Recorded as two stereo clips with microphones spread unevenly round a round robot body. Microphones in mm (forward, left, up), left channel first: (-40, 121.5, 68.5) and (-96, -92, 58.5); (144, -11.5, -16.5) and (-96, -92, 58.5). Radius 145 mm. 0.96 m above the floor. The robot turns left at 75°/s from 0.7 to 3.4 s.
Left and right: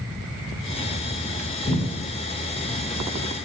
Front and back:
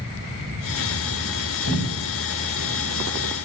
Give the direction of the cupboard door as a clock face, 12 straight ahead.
11 o'clock.